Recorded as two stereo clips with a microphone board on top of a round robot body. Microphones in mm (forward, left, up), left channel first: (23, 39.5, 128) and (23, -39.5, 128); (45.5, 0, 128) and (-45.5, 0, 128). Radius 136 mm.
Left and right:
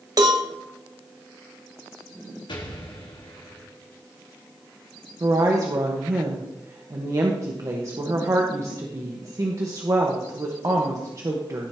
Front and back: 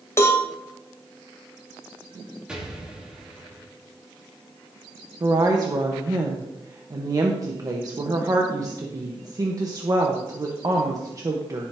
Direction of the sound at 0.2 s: 60° right.